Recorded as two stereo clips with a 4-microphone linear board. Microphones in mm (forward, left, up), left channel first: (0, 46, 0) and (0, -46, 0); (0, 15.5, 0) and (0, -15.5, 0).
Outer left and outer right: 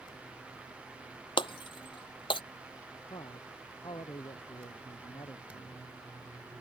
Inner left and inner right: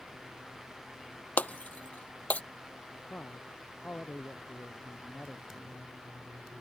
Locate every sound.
1.4 s breaking glass: 65° left (ahead or behind)
3.1 s a man speaking: 60° left (ahead or behind)